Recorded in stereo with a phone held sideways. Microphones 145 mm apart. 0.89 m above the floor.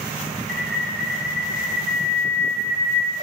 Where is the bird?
70° left (ahead or behind), 1.7 m.